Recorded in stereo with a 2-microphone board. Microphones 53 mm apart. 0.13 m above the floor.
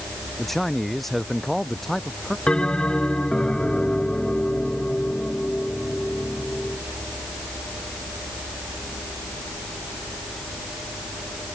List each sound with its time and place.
0.4 s a man speaking: 5° left (ahead or behind)
2.5 s a bell: 20° left (ahead or behind)